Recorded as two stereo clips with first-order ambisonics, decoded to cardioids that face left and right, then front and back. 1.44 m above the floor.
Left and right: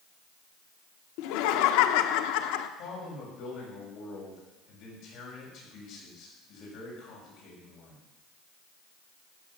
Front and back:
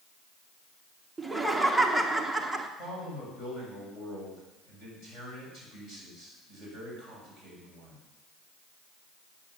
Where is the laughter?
95° left, 0.9 m.